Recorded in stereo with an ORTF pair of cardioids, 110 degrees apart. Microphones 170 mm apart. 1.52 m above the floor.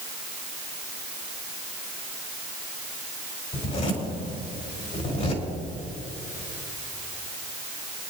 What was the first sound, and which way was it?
A zipper, 45° left.